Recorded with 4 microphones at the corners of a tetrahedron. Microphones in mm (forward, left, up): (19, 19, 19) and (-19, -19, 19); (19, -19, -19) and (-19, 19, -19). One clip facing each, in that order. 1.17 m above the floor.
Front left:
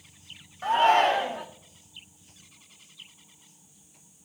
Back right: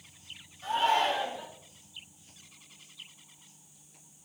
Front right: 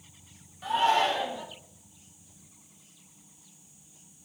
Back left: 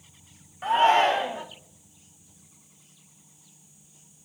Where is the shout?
85° left, 0.7 m.